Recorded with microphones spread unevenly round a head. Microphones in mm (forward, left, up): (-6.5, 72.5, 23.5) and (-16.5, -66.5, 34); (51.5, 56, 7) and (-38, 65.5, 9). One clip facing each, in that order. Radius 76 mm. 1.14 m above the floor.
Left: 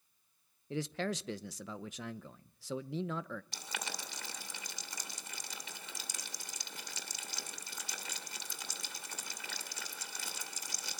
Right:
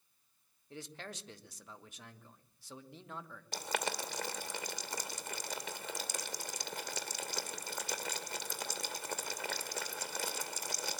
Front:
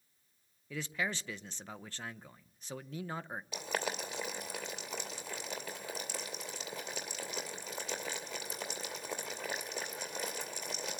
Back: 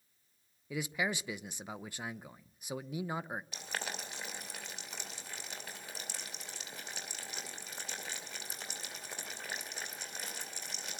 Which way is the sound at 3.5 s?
45° right.